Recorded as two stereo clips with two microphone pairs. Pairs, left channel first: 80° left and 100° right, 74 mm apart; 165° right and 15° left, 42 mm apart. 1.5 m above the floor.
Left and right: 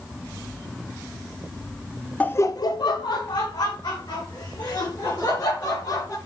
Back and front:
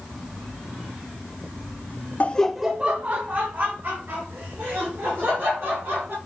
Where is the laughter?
145° left, 0.6 m; by 6.2 s 45° left, 4.5 m.